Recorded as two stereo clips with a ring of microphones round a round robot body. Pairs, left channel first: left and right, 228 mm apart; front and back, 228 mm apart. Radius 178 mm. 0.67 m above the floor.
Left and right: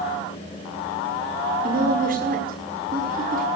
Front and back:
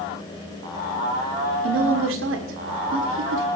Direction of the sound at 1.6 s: 150° right.